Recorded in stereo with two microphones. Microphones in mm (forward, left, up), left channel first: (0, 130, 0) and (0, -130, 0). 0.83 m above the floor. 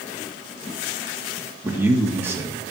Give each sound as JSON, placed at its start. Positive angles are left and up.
{"t": 1.6, "sound": "a man speaking", "side_deg": -10, "distance_m": 1.6}